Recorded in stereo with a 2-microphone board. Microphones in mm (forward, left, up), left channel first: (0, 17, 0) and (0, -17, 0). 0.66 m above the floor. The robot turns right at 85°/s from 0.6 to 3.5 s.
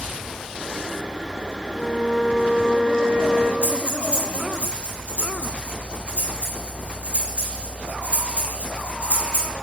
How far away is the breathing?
About 4.5 m.